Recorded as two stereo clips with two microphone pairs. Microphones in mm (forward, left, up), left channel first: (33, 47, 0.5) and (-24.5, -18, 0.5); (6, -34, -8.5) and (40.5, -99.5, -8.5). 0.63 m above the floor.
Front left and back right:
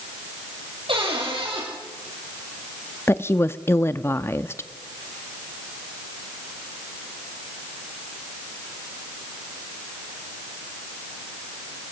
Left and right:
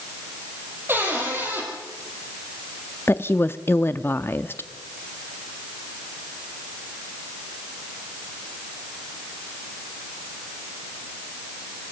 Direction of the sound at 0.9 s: 120° right.